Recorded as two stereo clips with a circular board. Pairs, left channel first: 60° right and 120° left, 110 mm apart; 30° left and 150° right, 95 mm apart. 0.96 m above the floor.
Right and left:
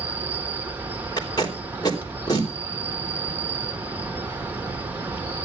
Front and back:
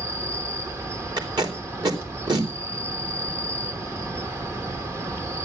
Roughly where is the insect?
Behind.